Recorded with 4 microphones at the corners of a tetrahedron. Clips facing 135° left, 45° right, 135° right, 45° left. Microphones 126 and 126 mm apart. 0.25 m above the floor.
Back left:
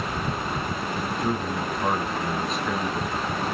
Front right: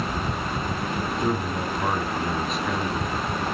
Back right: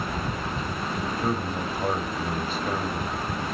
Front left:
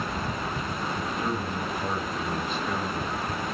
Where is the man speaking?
135° right, 1.3 m.